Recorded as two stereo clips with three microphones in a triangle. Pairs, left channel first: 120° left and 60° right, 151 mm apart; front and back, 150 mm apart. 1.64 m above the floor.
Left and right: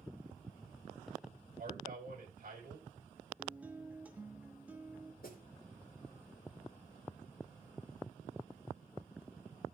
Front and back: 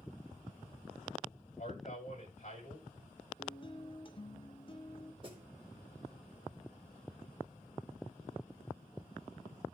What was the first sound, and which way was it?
A man speaking, 35° right.